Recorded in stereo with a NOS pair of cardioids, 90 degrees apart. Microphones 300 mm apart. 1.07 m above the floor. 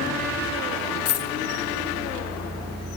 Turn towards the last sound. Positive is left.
turn(degrees=55)